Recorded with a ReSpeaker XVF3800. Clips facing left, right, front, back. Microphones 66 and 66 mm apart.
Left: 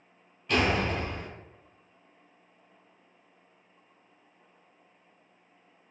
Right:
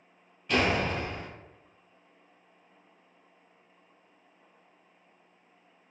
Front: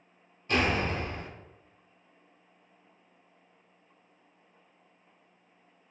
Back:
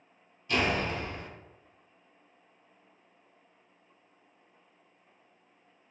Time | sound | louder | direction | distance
0.5 | a door slam | even, front 1 dB | straight ahead | 0.9 m